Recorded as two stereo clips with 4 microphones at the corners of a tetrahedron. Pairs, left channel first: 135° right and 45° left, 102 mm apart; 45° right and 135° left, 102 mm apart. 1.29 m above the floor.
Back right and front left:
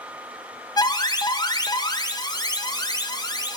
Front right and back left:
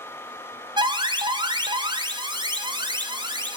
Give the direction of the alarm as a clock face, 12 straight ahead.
6 o'clock.